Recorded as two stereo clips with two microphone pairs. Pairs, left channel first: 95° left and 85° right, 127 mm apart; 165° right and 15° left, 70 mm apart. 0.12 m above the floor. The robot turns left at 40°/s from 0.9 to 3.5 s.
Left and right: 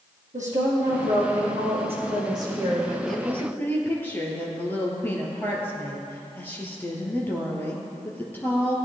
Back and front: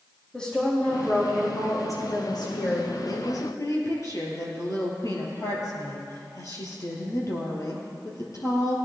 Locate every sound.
0.3 s a woman speaking: 80° right, 4 m; by 2.9 s 165° right, 4 m
3.1 s a woman speaking: 175° right, 3 m; by 8.8 s 165° left, 3 m